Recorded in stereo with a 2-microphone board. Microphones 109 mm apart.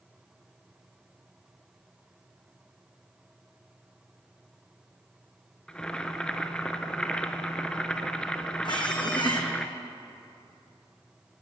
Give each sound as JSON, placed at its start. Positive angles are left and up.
{"t": 5.7, "sound": "boiling", "side_deg": 10, "distance_m": 0.6}
{"t": 8.7, "sound": "a squeak", "side_deg": 45, "distance_m": 1.4}